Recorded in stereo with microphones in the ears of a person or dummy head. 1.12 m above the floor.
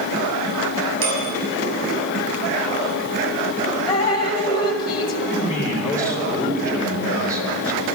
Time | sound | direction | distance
1.0 | a bicycle bell | 75° right (ahead or behind) | 6 m
3.9 | dripping | 20° left (ahead or behind) | 1.5 m
5.3 | a man speaking | 20° right (ahead or behind) | 3 m